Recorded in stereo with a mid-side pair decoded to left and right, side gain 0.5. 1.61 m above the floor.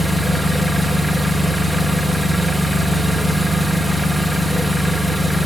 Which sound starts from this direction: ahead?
An engine running, at 0.0 s.